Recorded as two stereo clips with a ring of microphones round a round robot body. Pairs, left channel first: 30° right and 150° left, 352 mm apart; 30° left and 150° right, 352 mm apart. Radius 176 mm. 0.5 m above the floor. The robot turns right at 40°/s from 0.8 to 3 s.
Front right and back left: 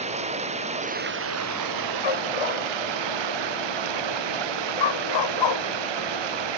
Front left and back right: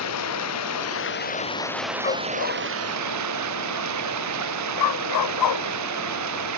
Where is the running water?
80° left; by 6.6 s 165° left.